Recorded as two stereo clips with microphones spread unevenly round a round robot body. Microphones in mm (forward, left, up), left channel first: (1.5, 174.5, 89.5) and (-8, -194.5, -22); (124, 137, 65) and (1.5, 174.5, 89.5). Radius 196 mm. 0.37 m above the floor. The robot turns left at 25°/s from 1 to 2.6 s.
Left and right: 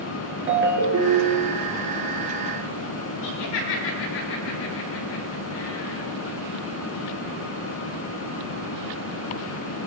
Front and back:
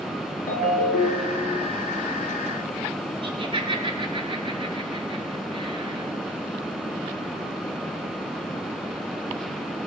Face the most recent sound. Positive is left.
turn(degrees=115)